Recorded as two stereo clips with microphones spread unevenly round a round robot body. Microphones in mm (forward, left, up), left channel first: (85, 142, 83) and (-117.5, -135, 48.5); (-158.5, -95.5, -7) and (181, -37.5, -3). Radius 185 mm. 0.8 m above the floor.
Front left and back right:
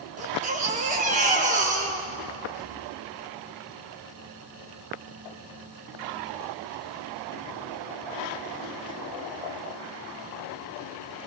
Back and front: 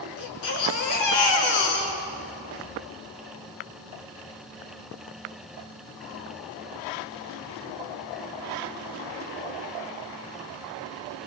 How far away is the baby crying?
About 4 m.